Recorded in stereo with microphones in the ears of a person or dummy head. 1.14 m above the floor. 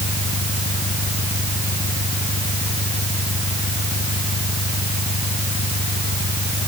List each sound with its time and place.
0.0 s an engine running: 30° left (ahead or behind)